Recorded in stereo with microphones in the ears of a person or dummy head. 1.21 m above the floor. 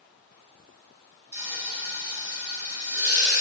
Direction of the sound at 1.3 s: 15° right (ahead or behind).